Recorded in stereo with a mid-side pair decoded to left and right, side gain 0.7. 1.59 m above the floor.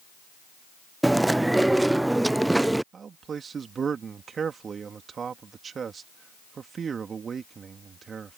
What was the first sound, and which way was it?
Chewing, 5° right.